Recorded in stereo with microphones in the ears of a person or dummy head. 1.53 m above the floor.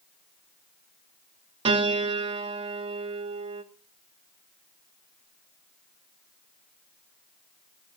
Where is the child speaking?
No child speaking in this recording.